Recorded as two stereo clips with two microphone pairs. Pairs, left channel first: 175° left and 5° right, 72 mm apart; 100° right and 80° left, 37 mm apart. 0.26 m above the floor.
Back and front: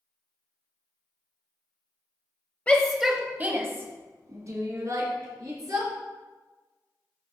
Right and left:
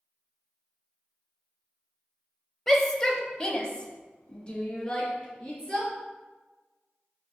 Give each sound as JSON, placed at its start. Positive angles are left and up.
{"t": 2.7, "sound": "a shout", "azimuth_deg": -165, "distance_m": 0.9}